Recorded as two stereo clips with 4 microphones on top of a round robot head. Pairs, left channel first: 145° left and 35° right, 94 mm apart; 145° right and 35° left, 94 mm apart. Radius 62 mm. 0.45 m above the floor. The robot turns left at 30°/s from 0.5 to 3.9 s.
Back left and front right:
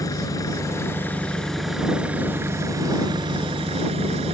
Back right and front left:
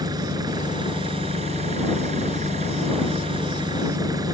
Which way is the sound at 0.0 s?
85° left.